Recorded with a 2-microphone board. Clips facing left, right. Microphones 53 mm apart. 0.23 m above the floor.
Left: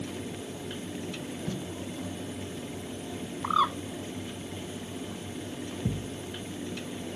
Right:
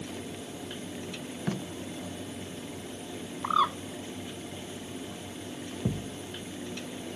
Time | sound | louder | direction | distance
1.5 | tape being pulled | right 4 dB | 60° right (ahead or behind) | ?
3.4 | a bird | even | 5° right (ahead or behind) | ?
5.8 | a thud | right 2 dB | 35° right (ahead or behind) | ?